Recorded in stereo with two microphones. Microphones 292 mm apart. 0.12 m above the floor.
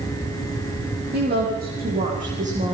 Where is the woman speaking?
35° right (ahead or behind), 7 m; by 2.7 s 25° right (ahead or behind), 7 m.